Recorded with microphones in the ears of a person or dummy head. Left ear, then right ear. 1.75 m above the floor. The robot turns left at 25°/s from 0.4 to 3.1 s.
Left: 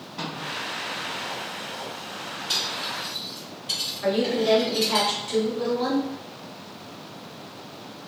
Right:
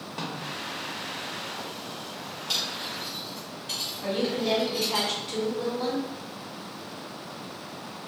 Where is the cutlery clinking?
Centre (ahead or behind), 1.4 m; by 5.0 s 15° left (ahead or behind), 1.4 m.